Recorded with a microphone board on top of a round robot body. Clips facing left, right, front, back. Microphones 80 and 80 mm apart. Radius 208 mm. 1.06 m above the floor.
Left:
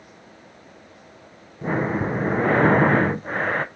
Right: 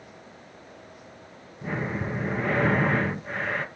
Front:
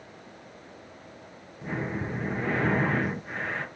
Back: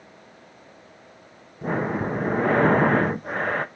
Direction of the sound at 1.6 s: 140° left.